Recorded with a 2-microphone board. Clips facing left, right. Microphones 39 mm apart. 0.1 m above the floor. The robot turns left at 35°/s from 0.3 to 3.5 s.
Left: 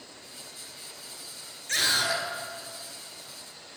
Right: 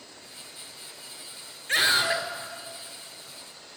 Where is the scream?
25° right (ahead or behind), 1.7 m; by 2.2 s 30° right (ahead or behind), 1.7 m.